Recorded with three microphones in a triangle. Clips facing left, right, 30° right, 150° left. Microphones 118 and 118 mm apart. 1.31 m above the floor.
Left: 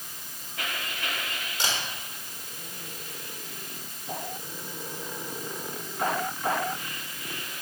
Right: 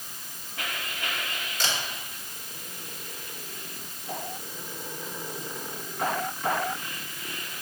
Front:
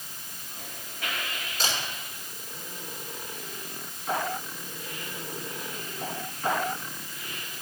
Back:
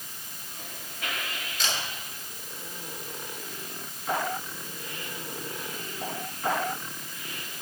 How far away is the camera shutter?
About 4 m.